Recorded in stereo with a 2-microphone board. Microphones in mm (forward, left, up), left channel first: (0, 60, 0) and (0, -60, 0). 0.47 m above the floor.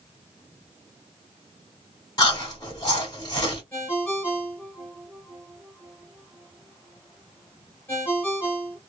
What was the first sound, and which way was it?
Chewing, 30° left (ahead or behind).